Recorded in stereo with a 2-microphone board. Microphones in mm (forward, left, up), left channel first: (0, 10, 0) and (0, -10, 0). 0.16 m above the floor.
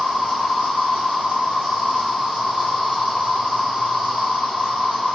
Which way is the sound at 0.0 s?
75° right (ahead or behind).